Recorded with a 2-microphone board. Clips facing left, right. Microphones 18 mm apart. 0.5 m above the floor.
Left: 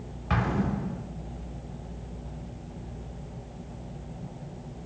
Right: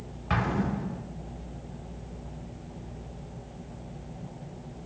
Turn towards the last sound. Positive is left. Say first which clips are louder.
# even
turn(degrees=-5)  # may be behind; listen again after turning